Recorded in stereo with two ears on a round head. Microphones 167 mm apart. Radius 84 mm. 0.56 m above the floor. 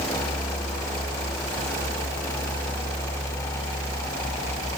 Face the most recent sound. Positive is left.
No sound to turn to.